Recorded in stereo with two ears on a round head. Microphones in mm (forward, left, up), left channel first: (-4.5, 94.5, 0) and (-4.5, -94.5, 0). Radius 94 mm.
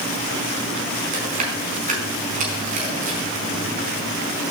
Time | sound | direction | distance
1.1 | chewing | 40° right (ahead or behind) | 4.5 m